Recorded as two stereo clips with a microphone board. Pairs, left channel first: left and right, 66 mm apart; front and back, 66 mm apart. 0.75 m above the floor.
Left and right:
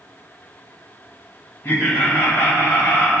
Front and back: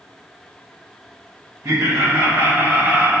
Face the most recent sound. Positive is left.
turn(degrees=125)